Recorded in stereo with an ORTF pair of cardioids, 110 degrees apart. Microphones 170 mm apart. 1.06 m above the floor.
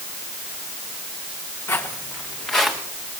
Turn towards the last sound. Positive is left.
turn(degrees=0)